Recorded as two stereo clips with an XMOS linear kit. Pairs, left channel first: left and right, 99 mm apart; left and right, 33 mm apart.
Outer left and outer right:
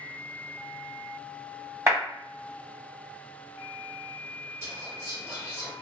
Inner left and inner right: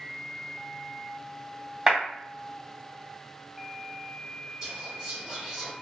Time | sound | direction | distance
1.9 | a clap | 30° right (ahead or behind) | 1.9 m
4.6 | whispering | 25° right (ahead or behind) | 1.5 m